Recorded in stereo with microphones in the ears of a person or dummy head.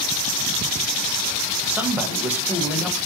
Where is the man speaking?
10° right (ahead or behind), 0.9 m.